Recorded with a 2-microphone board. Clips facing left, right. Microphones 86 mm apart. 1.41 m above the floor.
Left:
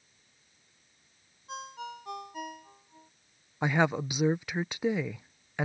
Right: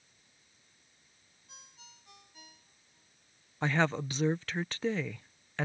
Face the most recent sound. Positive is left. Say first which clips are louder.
# left 3 dB
turn(degrees=10)  # may be behind; listen again after turning